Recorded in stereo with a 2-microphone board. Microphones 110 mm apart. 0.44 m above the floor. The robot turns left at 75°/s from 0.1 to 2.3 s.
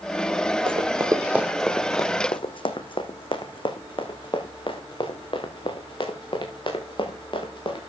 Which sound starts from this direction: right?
Running footsteps, at 0.7 s.